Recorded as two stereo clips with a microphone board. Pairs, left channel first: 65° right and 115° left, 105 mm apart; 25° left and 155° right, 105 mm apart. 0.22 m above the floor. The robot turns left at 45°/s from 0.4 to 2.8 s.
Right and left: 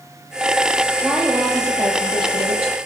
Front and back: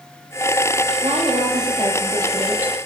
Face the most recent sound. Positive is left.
turn(degrees=125)